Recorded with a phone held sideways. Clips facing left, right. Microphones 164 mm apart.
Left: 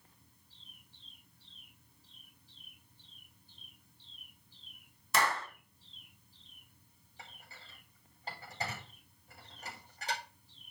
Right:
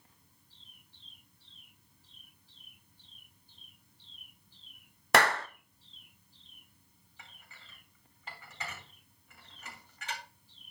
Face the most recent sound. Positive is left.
turn(degrees=35)  # may be behind; listen again after turning